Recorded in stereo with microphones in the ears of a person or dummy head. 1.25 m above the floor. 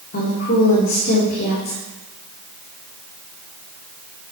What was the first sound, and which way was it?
A woman speaking, 55° left (ahead or behind).